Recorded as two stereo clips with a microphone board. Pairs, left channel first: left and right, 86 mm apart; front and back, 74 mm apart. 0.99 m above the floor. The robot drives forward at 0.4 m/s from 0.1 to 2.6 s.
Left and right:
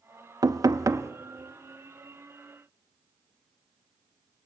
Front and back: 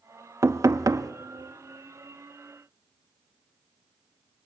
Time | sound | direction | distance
0.4 | knocking | 130° right | 0.7 m